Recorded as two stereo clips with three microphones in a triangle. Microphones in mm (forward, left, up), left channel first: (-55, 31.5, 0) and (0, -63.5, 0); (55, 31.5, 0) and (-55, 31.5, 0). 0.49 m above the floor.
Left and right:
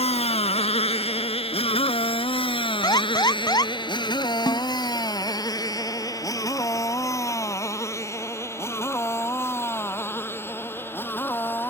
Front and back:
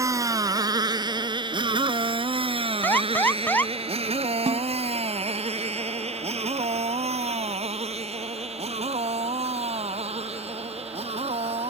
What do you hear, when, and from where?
0.0 s a motorcycle: 120° left; by 11.7 s 170° right
2.8 s an alarm: 75° left
4.5 s a snare drum: 165° left